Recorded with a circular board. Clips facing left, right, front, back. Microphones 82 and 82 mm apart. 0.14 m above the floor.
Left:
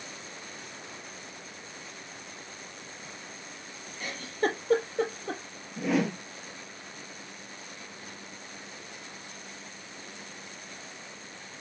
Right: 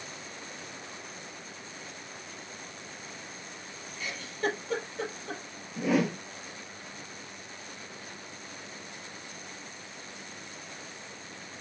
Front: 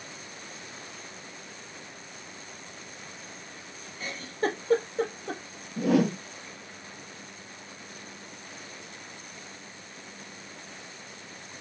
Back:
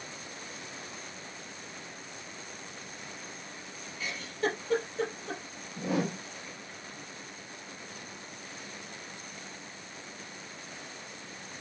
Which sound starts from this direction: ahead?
A whoosh, at 5.8 s.